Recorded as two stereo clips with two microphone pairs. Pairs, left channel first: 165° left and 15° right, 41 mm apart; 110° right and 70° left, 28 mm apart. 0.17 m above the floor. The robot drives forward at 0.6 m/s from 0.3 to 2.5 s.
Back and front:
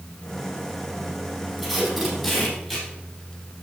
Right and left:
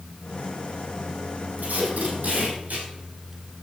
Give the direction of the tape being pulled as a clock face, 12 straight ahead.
10 o'clock.